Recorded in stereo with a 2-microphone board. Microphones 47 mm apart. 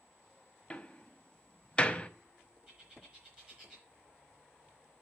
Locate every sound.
0.7 s a door slam: 20° left (ahead or behind), 0.8 m
2.7 s a bird: 20° right (ahead or behind), 3.5 m